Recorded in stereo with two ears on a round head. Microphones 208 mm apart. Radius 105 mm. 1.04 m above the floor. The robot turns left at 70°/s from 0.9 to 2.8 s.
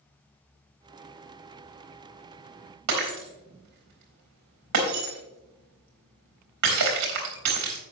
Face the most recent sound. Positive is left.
turn(degrees=-85)